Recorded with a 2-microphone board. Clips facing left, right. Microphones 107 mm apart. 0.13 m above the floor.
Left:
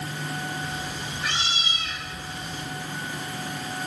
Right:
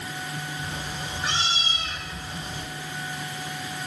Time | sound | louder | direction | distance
0.6 | a cat meowing | left 1 dB | 30° right (ahead or behind) | 7.5 m